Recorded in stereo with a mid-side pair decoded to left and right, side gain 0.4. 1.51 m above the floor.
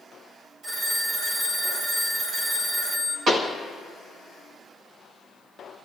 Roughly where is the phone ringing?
Ahead right.